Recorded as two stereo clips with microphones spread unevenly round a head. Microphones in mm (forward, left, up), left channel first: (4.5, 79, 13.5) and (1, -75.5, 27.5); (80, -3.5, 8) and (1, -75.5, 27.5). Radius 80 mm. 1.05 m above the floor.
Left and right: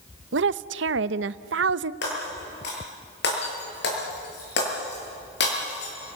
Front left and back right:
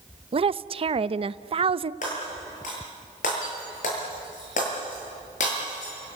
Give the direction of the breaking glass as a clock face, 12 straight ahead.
10 o'clock.